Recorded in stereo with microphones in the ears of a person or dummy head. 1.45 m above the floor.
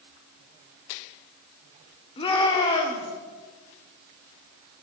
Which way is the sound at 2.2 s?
25° left (ahead or behind).